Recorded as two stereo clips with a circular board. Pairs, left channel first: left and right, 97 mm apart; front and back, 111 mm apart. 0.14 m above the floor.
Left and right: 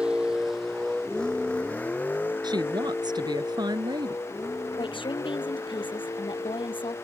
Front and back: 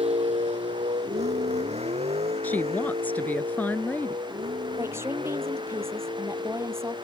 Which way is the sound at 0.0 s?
170° right.